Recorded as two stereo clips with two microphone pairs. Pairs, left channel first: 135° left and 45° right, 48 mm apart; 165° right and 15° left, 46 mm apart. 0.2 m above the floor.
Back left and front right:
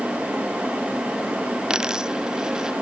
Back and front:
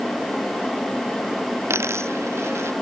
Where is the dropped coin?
30° left.